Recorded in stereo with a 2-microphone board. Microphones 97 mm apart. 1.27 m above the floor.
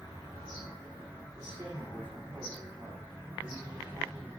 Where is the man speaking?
45° right (ahead or behind), 3 m.